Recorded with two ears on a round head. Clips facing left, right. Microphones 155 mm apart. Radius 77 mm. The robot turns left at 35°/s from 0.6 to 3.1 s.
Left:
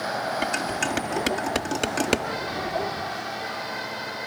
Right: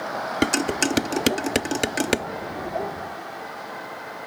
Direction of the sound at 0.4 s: 60° right (ahead or behind).